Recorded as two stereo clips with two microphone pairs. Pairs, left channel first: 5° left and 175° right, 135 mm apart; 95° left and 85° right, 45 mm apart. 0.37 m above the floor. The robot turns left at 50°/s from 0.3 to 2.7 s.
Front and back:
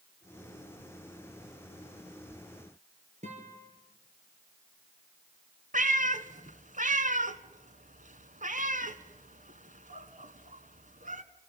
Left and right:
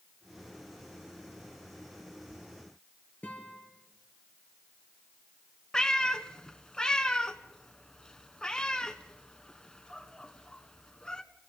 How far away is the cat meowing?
About 1.2 m.